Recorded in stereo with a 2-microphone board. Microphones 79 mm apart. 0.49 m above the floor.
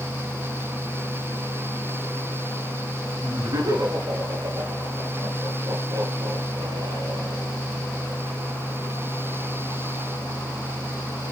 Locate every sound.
3.2 s laughter: 50° right (ahead or behind), 8.5 m; by 7.5 s 70° right (ahead or behind), 7.5 m